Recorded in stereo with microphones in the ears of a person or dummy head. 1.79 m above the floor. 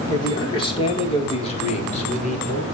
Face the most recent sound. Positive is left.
turn(degrees=40)  # may be behind; listen again after turning